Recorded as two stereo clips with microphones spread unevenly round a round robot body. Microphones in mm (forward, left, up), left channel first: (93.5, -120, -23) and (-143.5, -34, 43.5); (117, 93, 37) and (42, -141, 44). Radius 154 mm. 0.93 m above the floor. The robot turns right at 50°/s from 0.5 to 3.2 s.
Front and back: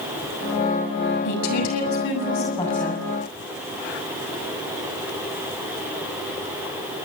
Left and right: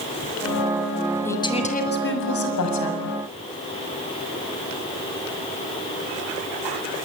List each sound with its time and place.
1.2 s a woman speaking: 10° right, 7 m; by 3.0 s 80° left, 7 m